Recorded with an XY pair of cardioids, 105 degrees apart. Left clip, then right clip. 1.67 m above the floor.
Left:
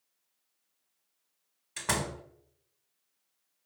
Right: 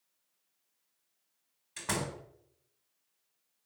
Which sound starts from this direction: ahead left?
A door slam, at 1.8 s.